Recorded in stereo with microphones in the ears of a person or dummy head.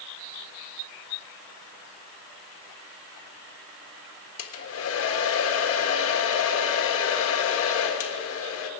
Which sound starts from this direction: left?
A hair dryer, at 4.4 s.